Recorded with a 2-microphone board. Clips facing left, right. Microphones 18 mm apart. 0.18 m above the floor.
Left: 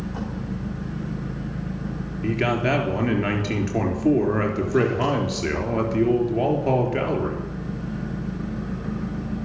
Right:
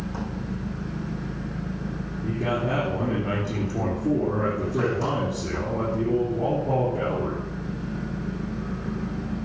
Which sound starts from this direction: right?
An engine running, at 0.0 s.